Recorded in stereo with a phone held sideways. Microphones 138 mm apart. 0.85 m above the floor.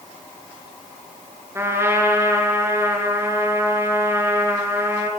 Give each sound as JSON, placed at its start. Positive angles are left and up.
{"t": 1.6, "sound": "a trumpet", "side_deg": -20, "distance_m": 4.5}